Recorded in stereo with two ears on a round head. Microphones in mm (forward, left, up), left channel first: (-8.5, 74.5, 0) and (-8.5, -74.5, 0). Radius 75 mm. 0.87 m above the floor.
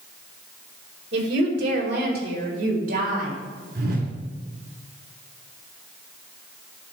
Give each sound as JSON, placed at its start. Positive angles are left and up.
{"t": 1.1, "sound": "a woman speaking", "side_deg": -75, "distance_m": 2.5}
{"t": 3.8, "sound": "a whoosh", "side_deg": -65, "distance_m": 1.8}